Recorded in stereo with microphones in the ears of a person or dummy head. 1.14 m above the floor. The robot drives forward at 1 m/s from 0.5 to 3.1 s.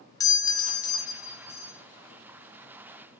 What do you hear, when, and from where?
0.2 s a doorbell: 20° left (ahead or behind), 0.5 m; by 1.8 s 10° left (ahead or behind), 1.2 m